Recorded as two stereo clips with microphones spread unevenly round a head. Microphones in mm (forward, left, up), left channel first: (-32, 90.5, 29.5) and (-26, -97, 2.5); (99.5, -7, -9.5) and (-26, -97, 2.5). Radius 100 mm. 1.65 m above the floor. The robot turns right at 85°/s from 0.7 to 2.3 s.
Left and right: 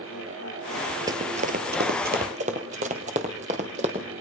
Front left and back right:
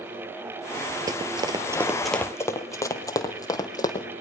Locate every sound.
1.1 s running footsteps: 155° right, 1.8 m; by 4.0 s 30° right, 3 m